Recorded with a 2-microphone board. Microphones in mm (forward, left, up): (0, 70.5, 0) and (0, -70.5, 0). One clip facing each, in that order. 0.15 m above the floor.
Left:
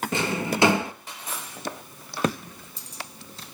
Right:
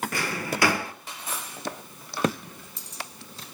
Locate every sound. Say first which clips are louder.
0.1 s a drawer: left 4 dB; 20° left (ahead or behind), 0.6 m